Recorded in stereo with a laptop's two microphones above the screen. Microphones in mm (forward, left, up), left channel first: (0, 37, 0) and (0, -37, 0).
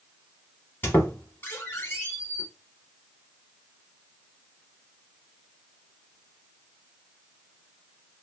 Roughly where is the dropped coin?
No dropped coin in this recording.